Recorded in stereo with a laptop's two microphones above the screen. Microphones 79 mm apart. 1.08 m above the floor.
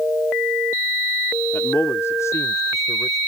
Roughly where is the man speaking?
Left.